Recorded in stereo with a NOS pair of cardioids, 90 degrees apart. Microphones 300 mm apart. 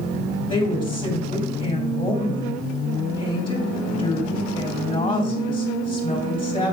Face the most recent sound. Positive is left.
turn(degrees=15)